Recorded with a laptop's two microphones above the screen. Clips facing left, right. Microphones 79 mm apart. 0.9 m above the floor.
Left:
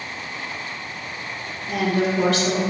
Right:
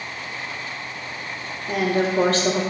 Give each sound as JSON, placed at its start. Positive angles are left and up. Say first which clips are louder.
{"t": 1.7, "sound": "a woman speaking", "louder": "even", "side_deg": -40, "distance_m": 0.8}